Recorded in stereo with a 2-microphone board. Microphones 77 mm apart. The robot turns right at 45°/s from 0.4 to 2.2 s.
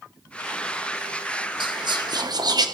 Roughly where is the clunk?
No clunk in this recording.